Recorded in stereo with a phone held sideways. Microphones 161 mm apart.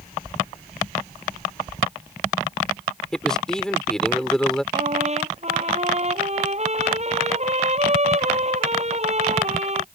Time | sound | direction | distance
3.1 | a man speaking | 5° left (ahead or behind) | ?
4.7 | a trumpet | 45° right (ahead or behind) | ?